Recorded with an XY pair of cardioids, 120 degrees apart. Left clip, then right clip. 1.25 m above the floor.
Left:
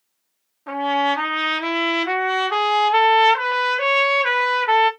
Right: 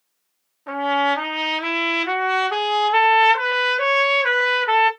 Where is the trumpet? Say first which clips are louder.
Even; 10° left, 0.9 m.